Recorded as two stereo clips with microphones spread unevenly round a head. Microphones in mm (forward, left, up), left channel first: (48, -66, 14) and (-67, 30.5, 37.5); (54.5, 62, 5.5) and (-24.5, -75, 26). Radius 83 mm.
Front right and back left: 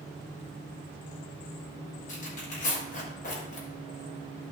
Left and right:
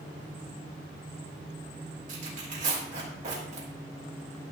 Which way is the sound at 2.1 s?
75° right.